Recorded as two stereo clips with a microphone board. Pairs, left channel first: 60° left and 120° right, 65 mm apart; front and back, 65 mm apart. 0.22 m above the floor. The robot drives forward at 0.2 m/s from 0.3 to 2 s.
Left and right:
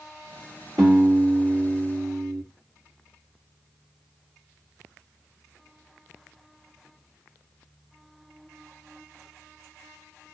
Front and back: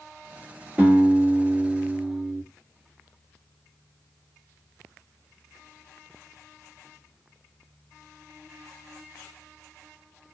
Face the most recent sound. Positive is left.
turn(degrees=-120)